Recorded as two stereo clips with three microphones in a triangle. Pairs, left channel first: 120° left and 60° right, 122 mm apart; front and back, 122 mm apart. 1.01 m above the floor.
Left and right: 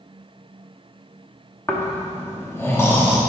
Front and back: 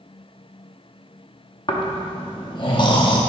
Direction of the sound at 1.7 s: 50° left.